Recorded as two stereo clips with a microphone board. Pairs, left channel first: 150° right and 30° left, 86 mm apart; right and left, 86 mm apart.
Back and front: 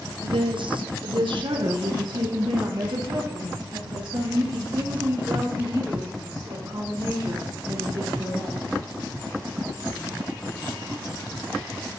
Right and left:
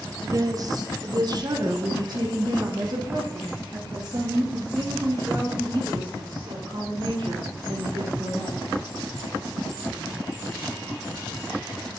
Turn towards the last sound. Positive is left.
turn(degrees=55)